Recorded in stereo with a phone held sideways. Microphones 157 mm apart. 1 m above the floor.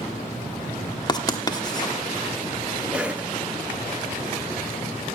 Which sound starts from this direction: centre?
A cough, at 2.9 s.